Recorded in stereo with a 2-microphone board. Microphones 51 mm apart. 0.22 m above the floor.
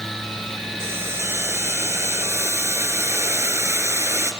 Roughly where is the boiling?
Right.